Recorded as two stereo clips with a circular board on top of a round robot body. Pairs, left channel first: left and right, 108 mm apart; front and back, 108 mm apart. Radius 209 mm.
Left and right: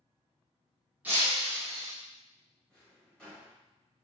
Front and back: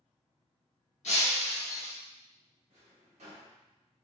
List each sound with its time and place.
1.0 s breaking glass: 15° right, 0.6 m
2.7 s a drawer: 170° left, 1.1 m